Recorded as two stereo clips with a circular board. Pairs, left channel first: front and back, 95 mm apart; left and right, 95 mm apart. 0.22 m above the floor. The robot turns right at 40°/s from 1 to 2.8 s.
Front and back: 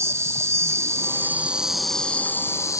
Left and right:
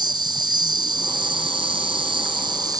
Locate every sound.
0.0 s an insect: 120° right; by 2.8 s 50° right